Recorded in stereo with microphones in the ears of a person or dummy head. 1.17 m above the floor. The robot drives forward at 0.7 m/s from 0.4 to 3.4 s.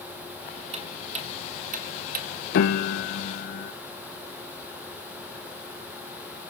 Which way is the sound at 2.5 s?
60° left (ahead or behind).